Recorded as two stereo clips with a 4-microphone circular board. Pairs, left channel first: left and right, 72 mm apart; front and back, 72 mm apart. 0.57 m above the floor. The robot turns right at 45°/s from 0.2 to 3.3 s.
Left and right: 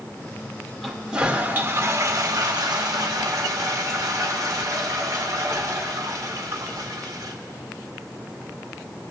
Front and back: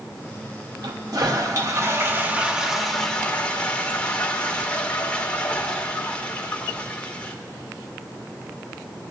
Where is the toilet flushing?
175° left, 1.0 m; by 7.3 s 70° right, 1.0 m.